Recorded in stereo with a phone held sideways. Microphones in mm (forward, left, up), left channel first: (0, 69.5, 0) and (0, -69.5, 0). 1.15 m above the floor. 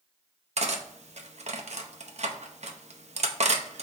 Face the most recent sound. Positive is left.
turn(degrees=-55)  # may be behind; listen again after turning